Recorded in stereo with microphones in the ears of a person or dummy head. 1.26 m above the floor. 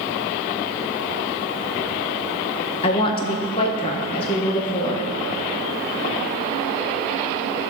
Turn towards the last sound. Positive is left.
turn(degrees=30)  # may be behind; listen again after turning